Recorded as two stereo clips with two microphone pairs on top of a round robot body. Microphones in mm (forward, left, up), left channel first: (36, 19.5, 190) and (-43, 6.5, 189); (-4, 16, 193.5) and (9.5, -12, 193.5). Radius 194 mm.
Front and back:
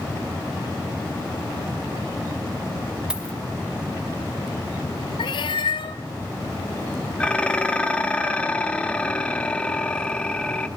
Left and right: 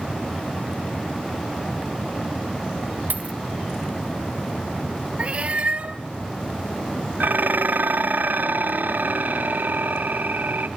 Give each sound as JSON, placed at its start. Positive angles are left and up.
{"t": 3.1, "sound": "a dropped coin", "azimuth_deg": -90, "distance_m": 1.8}
{"t": 5.2, "sound": "a cat meowing", "azimuth_deg": -15, "distance_m": 0.6}
{"t": 7.2, "sound": "dishes clattering", "azimuth_deg": -70, "distance_m": 1.4}